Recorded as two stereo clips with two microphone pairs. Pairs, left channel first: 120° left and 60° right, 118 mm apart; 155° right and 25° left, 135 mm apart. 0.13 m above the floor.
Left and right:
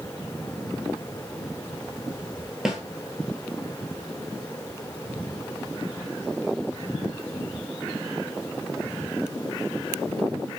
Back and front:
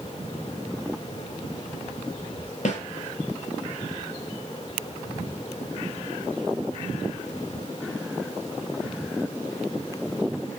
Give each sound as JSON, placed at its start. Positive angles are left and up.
{"t": 2.6, "sound": "a snare drum", "azimuth_deg": -150, "distance_m": 0.7}